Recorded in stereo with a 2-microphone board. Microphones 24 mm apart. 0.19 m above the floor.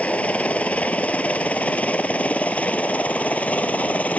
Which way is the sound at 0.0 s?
60° left (ahead or behind).